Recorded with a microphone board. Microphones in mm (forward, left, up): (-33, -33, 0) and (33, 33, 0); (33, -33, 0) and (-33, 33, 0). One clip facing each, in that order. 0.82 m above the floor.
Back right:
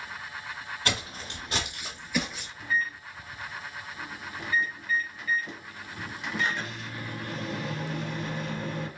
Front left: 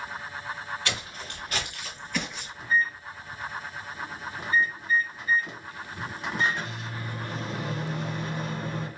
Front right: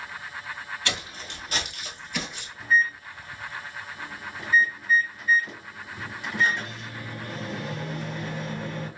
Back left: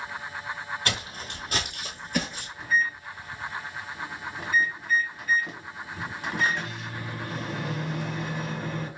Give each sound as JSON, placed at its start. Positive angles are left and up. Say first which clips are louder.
{"t": 0.8, "sound": "footsteps", "louder": "back right 2 dB, back left 1 dB", "azimuth_deg": 180, "distance_m": 1.3}
{"t": 2.6, "sound": "a microwave", "louder": "front left 4 dB, front right 3 dB", "azimuth_deg": 100, "distance_m": 1.6}